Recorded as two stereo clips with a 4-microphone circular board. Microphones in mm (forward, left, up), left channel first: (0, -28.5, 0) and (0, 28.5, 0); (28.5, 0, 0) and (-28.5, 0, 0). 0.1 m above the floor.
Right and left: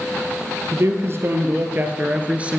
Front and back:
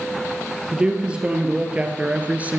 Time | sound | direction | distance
0.7 | a man speaking | 110° left | 2 m